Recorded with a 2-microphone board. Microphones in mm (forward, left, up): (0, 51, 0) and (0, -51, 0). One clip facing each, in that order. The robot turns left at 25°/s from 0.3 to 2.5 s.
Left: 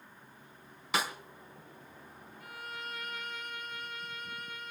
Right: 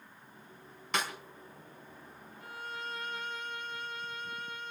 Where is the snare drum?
5° left (ahead or behind), 3.5 m; by 1.1 s 10° left (ahead or behind), 3.5 m.